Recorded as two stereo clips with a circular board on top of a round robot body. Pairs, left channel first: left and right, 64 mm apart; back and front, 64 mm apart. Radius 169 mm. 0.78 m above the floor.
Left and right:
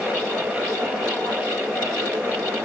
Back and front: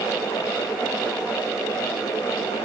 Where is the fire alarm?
I don't hear a fire alarm.